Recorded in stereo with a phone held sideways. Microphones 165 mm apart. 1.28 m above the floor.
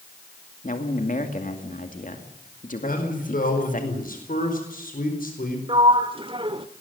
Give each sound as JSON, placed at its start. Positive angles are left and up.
{"t": 0.6, "sound": "a man speaking", "side_deg": 60, "distance_m": 2.5}
{"t": 2.8, "sound": "a man speaking", "side_deg": 65, "distance_m": 4.5}
{"t": 5.7, "sound": "a sliding door", "side_deg": -35, "distance_m": 1.0}